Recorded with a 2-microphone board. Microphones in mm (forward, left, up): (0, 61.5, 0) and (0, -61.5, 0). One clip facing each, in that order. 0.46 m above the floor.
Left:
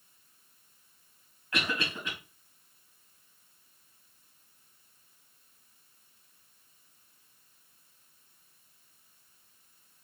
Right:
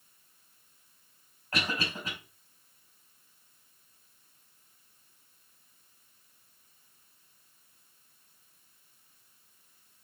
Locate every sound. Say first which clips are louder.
1.5 s a cough: even; 40° right (ahead or behind), 2.5 m